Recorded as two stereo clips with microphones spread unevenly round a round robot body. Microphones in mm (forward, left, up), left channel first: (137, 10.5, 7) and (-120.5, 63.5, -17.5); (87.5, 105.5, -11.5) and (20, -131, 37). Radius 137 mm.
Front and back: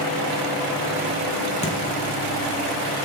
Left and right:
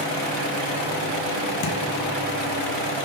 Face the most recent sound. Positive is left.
turn(degrees=50)